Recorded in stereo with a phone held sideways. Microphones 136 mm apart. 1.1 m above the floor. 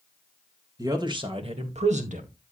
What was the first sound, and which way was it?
A man speaking, 25° right (ahead or behind).